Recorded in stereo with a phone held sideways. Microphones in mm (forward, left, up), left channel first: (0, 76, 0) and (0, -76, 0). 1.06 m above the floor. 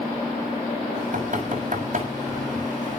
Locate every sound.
0.9 s knocking: 55° right (ahead or behind), 6.5 m